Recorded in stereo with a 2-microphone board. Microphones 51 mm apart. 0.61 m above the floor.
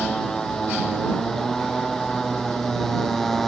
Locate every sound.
0.0 s a motorcycle: 10° left (ahead or behind); by 3.5 s 5° left (ahead or behind)